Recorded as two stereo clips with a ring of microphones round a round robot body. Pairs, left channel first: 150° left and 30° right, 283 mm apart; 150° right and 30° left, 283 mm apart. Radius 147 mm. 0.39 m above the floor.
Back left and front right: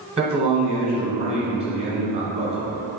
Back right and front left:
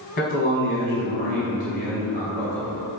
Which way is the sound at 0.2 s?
115° right.